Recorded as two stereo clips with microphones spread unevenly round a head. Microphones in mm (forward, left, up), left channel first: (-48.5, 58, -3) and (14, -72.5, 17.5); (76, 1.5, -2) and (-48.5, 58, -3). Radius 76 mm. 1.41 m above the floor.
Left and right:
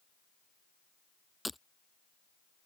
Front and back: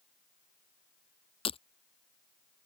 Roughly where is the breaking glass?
Ahead left.